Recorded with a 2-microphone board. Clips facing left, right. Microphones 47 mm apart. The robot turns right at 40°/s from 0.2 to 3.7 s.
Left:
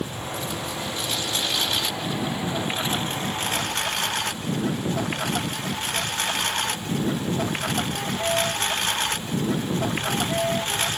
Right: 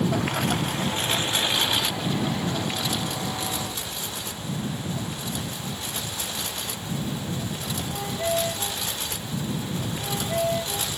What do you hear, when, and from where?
0.0 s a lawn mower: 70° right (ahead or behind); by 11.0 s 55° left (ahead or behind)